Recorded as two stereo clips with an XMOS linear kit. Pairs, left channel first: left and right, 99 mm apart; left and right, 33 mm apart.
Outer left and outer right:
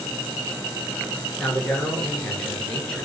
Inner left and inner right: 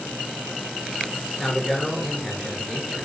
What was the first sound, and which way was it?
A man speaking, 5° left (ahead or behind).